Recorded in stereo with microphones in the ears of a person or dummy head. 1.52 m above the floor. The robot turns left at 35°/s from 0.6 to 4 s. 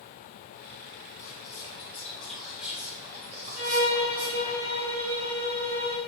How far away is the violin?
About 1.7 m.